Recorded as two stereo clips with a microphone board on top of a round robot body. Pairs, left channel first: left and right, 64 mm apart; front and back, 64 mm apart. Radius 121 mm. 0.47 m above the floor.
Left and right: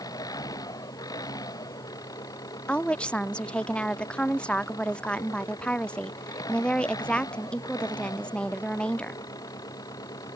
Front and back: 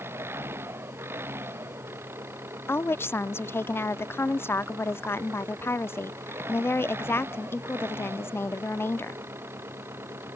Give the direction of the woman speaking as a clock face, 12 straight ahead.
11 o'clock.